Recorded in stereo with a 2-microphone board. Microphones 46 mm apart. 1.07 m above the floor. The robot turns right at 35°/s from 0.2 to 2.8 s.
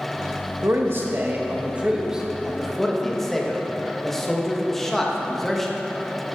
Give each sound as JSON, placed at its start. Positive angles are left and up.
{"t": 0.6, "sound": "a man speaking", "side_deg": -55, "distance_m": 1.5}